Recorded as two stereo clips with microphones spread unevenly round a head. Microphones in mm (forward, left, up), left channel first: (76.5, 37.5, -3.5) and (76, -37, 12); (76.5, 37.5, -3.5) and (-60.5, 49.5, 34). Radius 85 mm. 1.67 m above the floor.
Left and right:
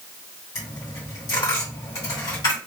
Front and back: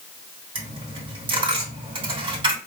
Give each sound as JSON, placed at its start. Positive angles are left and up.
{"t": 0.6, "sound": "a dropped coin", "azimuth_deg": 155, "distance_m": 2.5}